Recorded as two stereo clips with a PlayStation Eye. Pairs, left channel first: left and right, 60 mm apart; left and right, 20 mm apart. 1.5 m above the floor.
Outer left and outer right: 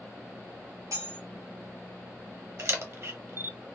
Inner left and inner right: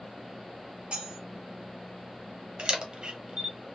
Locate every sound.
0.9 s cutlery clinking: 70° right (ahead or behind), 2 m
2.6 s a camera shutter: 50° right (ahead or behind), 0.8 m